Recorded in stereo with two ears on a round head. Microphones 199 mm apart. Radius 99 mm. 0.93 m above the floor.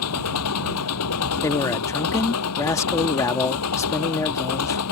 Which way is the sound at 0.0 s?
80° left.